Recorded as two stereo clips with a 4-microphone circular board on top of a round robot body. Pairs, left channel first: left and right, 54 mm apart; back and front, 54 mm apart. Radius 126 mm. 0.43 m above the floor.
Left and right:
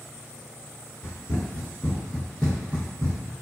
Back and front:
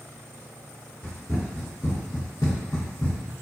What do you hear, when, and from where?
1.0 s running footsteps: 125° left, 1.0 m; by 3.3 s 110° right, 0.6 m